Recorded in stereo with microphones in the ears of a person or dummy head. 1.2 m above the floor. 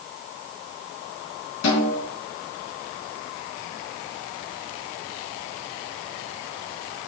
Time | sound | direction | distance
1.6 | a snare drum | 75° left (ahead or behind) | 3.5 m